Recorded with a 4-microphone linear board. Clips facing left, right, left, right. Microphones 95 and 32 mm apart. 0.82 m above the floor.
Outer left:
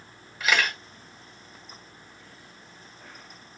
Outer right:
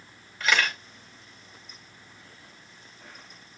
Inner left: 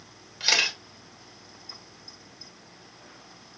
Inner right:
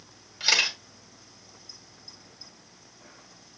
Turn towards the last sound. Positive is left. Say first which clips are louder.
# even, even
turn(degrees=5)  # may be behind; listen again after turning